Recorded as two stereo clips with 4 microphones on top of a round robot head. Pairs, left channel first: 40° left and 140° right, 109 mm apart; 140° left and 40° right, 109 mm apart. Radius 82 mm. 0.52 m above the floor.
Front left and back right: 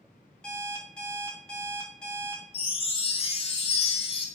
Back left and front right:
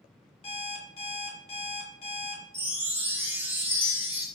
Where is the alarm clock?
120° left, 1.1 m.